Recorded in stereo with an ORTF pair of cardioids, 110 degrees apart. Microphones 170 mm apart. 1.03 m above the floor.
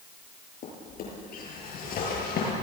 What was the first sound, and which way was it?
A drawer, 60° left.